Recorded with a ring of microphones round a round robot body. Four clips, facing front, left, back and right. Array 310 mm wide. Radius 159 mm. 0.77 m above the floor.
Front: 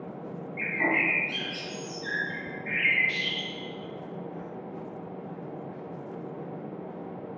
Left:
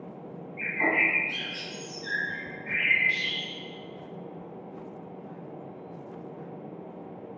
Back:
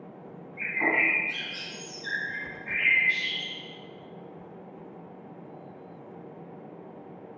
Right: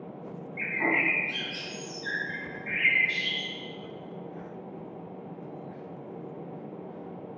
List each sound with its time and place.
0.6 s a bird: 35° right, 2.5 m